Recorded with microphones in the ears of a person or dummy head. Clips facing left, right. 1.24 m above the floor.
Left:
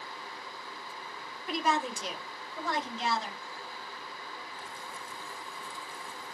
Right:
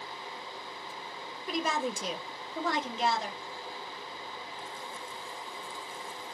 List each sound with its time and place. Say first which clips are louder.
1.5 s a woman speaking: left 1 dB; 80° right, 0.9 m; by 3.4 s 40° right (ahead or behind), 1.1 m